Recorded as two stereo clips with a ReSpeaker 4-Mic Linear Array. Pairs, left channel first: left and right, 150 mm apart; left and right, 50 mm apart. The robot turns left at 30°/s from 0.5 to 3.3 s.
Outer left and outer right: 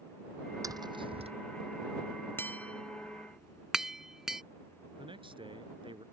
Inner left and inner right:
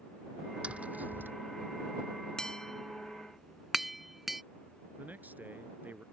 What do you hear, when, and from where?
0.6 s tapping: 25° right (ahead or behind); by 1.3 s 45° right (ahead or behind)
2.4 s tapping: 15° left (ahead or behind); by 4.4 s 5° right (ahead or behind)
5.0 s a man speaking: 35° right (ahead or behind)